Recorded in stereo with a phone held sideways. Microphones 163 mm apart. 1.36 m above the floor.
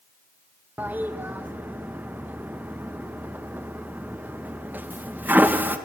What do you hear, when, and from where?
0.8 s a toilet flushing: 10° right (ahead or behind), 1.0 m